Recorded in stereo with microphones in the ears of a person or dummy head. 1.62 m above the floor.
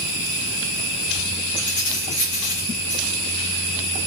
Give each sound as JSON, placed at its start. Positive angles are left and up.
{"t": 1.6, "sound": "keys jangling", "side_deg": 65, "distance_m": 3.0}